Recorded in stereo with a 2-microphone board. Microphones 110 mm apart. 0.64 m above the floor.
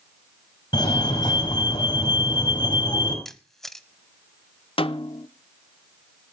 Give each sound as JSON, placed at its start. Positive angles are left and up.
{"t": 0.7, "sound": "a fire alarm", "side_deg": 40, "distance_m": 5.5}
{"t": 3.2, "sound": "a camera shutter", "side_deg": 0, "distance_m": 1.1}
{"t": 4.8, "sound": "a snare drum", "side_deg": 55, "distance_m": 0.8}